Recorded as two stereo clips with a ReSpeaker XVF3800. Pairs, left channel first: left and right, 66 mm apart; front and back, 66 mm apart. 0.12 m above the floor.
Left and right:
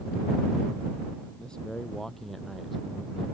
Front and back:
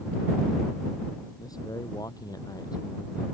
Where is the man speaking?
15° left; by 3.2 s 5° right.